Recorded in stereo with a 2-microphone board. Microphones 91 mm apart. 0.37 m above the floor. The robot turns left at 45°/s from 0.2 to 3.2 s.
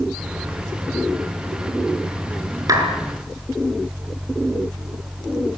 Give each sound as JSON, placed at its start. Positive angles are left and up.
{"t": 2.7, "sound": "a clap", "side_deg": -40, "distance_m": 5.5}